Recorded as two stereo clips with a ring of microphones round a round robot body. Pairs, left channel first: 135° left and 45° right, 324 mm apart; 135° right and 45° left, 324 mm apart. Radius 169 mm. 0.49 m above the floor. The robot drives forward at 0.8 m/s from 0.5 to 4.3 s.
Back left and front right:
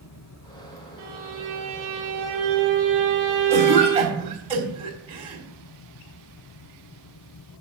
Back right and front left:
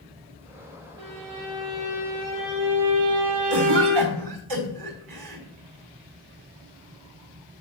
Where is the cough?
25° left, 5 m; by 5.4 s 30° left, 4.5 m.